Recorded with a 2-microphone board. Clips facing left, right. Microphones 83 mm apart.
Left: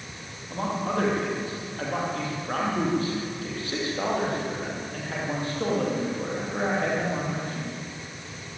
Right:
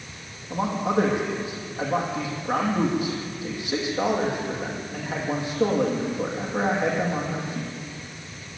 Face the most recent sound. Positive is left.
turn(degrees=-15)  # may be behind; listen again after turning